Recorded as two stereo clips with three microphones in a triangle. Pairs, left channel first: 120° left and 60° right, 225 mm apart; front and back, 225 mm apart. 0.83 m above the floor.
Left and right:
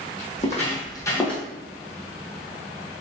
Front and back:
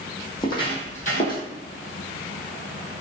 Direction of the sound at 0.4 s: 70° left.